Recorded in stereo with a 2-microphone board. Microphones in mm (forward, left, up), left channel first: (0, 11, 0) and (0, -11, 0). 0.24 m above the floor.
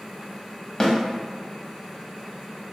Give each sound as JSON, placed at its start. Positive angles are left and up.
{"t": 0.8, "sound": "a snare drum", "side_deg": 25, "distance_m": 0.7}